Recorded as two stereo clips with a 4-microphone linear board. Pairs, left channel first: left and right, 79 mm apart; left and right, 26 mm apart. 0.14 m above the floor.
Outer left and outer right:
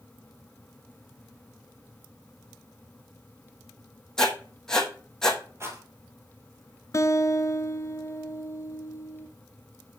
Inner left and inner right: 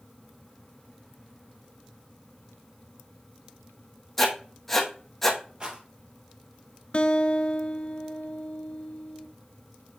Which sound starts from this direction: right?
A rattle, at 5.6 s.